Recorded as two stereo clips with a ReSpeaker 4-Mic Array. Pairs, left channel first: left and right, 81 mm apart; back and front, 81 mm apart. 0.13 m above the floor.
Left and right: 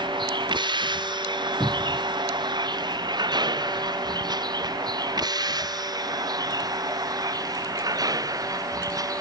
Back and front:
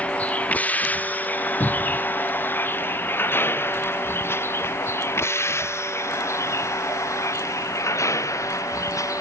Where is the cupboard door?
145° left.